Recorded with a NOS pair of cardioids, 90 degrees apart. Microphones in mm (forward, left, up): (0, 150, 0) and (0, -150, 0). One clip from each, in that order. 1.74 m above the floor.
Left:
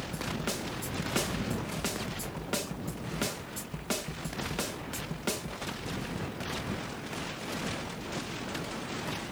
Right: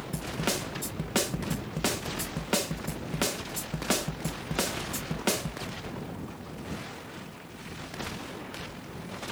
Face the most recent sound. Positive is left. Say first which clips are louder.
# right 5 dB
turn(degrees=-35)